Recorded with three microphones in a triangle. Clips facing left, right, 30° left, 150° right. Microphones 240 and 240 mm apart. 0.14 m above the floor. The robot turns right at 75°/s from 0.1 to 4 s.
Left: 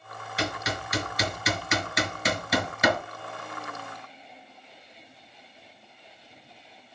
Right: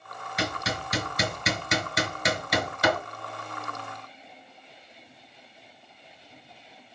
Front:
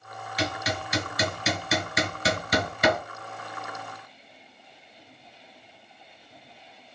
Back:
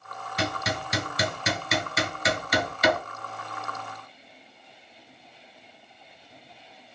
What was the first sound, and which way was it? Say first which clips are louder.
Hammering: even, even; 160° right.